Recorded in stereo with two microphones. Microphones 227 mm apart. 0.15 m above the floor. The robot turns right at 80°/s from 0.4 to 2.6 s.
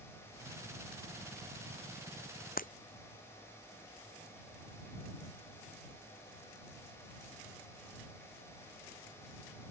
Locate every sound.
2.6 s breaking glass: 40° left (ahead or behind)